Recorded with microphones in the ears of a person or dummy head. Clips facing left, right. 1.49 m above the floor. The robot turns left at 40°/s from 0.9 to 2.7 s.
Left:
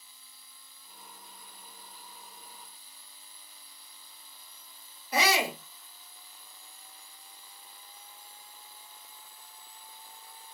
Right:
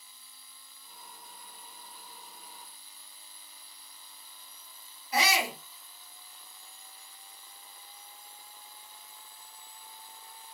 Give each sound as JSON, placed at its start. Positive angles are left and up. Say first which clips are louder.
{"t": 5.1, "sound": "a shout", "louder": "left 2 dB", "side_deg": 50, "distance_m": 0.8}